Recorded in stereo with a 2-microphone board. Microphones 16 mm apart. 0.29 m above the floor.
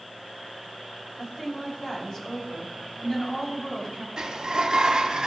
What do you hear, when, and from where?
1.2 s a woman speaking: 55° left (ahead or behind), 3 m
4.2 s a sliding door: 70° right (ahead or behind), 0.7 m